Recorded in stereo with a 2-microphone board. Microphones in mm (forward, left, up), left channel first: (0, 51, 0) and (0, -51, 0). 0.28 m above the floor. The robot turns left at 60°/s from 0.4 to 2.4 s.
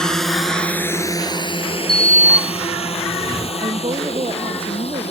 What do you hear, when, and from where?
0.0 s a drone: 5° left (ahead or behind); by 5.1 s 80° left
1.9 s a sliding door: 175° left; by 3.5 s 145° left
3.6 s a woman speaking: 65° right (ahead or behind)